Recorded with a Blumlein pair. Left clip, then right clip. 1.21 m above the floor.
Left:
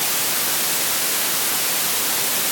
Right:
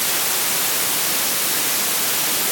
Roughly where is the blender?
No blender in this recording.